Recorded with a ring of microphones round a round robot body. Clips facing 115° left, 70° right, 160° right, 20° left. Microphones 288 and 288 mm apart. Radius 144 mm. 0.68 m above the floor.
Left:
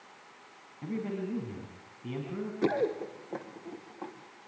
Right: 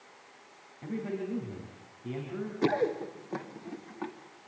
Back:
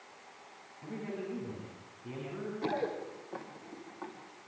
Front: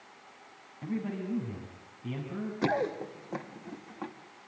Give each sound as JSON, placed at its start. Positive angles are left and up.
{"t": 0.8, "sound": "a man speaking", "azimuth_deg": 50, "distance_m": 5.0}
{"t": 2.6, "sound": "running footsteps", "azimuth_deg": 15, "distance_m": 2.5}